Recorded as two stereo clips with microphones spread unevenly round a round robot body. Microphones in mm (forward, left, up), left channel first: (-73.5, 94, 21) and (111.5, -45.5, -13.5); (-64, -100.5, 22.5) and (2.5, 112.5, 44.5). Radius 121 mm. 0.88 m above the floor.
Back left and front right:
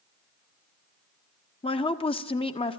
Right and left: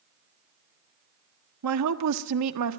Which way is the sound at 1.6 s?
70° left.